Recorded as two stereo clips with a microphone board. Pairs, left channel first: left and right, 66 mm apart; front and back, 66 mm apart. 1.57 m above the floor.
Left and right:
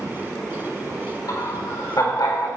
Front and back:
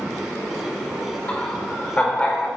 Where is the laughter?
65° left, 5.5 m; by 2.5 s 70° left, 5.5 m.